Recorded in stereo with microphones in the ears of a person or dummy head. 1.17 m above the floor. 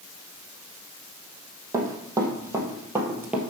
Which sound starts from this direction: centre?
Running footsteps, at 1.7 s.